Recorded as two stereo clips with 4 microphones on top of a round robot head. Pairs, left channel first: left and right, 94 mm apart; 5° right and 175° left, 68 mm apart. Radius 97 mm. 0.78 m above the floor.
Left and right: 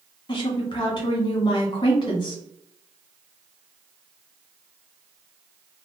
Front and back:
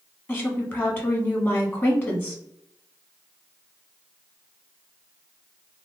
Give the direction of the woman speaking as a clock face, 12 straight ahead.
10 o'clock.